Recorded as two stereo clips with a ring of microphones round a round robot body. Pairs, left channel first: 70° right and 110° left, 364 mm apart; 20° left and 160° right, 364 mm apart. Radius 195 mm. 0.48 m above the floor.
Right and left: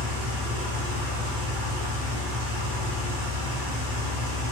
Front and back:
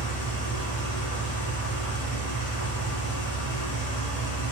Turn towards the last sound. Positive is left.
turn(degrees=100)